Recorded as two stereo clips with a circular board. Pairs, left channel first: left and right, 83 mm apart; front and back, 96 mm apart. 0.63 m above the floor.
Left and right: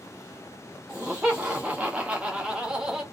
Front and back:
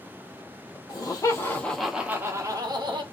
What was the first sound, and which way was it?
Laughter, 15° right.